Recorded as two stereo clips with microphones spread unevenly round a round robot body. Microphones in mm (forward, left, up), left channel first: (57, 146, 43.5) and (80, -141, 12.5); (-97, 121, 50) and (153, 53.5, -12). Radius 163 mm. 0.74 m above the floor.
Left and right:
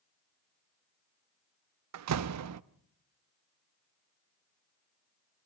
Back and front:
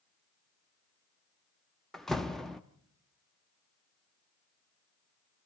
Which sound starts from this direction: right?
A door slam, at 1.9 s.